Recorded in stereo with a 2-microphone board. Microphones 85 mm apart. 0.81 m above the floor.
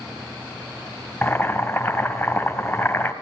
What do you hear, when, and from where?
1.2 s boiling: 30° left (ahead or behind), 1.9 m